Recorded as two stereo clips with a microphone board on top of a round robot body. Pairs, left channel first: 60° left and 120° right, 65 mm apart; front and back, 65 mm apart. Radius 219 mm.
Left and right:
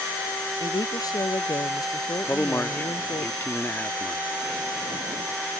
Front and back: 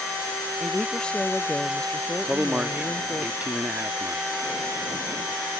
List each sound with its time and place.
0.6 s a woman speaking: 75° left
2.2 s a man speaking: 110° left